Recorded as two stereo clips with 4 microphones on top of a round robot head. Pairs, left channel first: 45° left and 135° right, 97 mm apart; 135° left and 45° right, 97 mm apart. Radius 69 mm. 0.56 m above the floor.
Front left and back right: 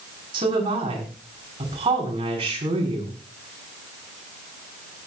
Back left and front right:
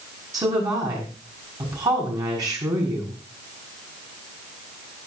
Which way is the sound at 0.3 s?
100° right.